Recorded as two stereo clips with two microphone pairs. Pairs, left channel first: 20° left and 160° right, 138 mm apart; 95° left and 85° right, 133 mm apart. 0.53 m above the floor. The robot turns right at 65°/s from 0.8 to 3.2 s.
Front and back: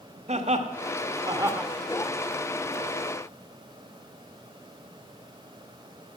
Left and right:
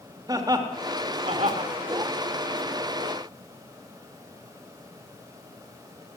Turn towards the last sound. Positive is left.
turn(degrees=20)